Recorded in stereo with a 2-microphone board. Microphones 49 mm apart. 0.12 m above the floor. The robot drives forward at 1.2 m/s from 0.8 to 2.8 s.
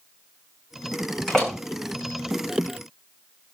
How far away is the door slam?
About 7.5 m.